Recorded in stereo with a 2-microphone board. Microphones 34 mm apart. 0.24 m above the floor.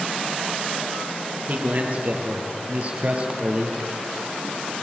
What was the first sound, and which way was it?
A man speaking, 45° right (ahead or behind).